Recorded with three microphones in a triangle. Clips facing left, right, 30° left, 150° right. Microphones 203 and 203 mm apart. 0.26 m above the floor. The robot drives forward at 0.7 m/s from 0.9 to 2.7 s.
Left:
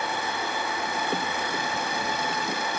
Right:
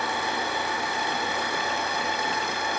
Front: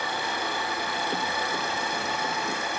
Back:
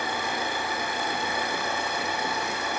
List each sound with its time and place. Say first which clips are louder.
0.0 s an engine running: right 1 dB, back 1 dB; 105° right, 2.5 m; by 2.8 s 130° right, 3.5 m